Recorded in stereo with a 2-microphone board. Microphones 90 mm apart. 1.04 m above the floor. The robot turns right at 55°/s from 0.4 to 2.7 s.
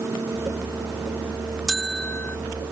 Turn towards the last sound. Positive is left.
turn(degrees=55)